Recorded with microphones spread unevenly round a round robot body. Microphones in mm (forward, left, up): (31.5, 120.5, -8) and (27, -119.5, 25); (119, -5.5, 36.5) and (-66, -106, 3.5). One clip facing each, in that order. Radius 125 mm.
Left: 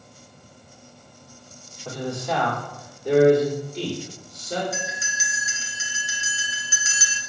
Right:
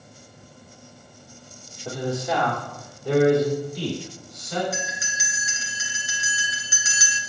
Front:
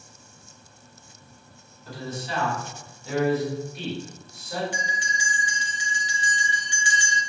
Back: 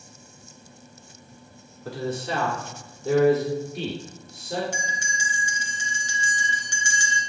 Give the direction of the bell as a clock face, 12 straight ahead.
3 o'clock.